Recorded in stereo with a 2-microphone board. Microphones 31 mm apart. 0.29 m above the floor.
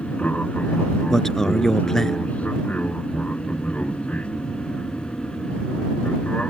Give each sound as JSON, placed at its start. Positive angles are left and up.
{"t": 0.0, "sound": "an aircraft", "side_deg": 50}
{"t": 1.1, "sound": "a man speaking", "side_deg": 15}